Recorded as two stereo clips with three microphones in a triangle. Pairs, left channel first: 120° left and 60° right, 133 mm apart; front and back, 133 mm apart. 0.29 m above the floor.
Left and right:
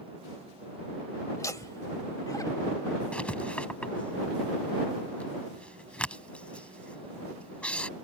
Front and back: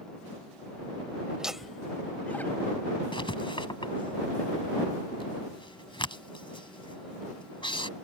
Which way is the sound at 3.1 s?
40° left.